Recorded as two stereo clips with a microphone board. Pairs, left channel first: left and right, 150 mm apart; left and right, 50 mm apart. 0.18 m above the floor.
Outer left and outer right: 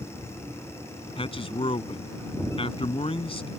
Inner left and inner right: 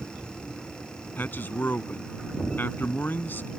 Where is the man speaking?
40° left (ahead or behind).